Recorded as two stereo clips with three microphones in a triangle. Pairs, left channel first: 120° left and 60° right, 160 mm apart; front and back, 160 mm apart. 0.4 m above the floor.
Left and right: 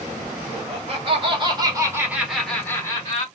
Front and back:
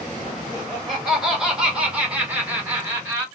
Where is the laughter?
90° right, 1.6 m; by 3.2 s 115° left, 1.0 m.